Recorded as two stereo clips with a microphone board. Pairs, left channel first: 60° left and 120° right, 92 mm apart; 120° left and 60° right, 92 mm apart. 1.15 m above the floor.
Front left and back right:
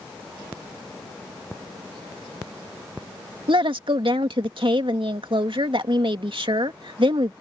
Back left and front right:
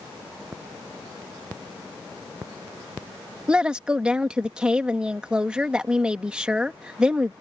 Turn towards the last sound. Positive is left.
turn(degrees=-140)